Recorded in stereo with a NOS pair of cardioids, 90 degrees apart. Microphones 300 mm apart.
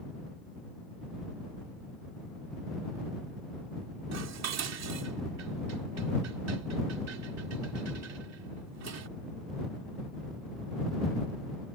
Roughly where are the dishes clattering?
Ahead right.